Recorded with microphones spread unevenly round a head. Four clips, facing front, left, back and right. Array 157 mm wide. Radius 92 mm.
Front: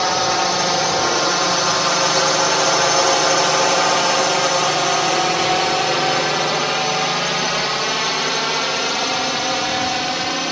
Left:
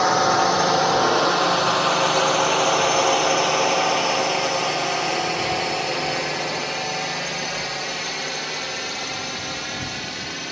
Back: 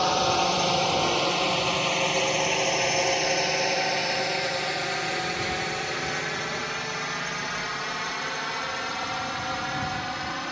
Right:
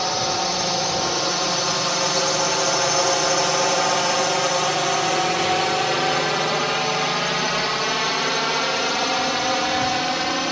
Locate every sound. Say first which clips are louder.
0.0 s a drone: left 6 dB, front 5 dB; 55° left; by 10.5 s 50° right